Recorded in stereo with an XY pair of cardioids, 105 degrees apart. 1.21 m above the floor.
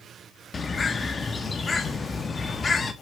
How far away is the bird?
About 1.4 m.